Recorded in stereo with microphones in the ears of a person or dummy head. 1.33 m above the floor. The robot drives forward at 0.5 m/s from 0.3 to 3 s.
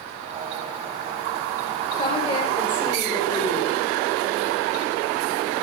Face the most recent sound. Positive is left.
turn(degrees=40)  # may be behind; listen again after turning